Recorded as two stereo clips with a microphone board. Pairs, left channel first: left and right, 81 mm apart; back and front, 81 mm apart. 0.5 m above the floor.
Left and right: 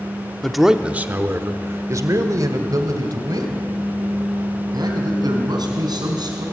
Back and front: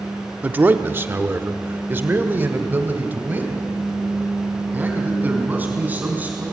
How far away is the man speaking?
About 0.8 m.